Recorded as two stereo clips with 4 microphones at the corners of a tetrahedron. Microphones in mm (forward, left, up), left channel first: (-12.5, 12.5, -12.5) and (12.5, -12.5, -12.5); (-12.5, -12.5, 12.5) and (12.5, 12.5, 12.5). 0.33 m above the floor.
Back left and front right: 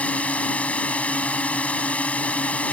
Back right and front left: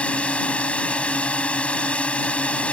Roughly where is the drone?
Behind.